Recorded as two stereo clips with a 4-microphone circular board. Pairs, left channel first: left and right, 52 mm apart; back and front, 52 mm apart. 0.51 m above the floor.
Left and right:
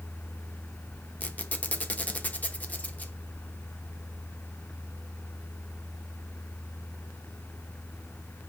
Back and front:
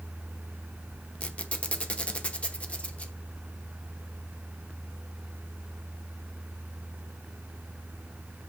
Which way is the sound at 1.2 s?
130° left.